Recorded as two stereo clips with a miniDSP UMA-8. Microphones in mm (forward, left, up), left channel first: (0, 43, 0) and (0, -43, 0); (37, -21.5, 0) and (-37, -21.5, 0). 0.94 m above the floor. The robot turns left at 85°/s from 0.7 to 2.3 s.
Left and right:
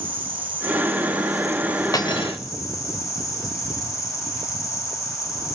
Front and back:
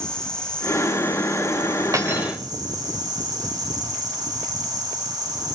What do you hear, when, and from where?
0.0 s an insect: 80° right, 2.5 m; by 5.5 s 145° left, 2.5 m
1.9 s cutlery clinking: 135° left, 1.9 m; by 2.4 s 105° left, 1.9 m